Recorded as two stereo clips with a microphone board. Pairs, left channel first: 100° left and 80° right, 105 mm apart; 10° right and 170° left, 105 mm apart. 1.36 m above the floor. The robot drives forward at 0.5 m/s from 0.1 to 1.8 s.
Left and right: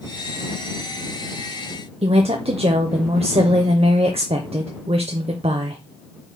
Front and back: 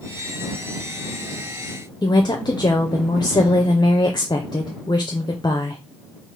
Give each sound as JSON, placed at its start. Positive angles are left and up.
{"t": 2.0, "sound": "a woman speaking", "azimuth_deg": -60, "distance_m": 0.6}